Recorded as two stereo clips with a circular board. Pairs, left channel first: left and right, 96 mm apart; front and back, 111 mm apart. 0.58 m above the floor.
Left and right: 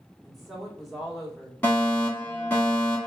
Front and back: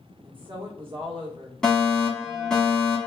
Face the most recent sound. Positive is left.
turn(degrees=70)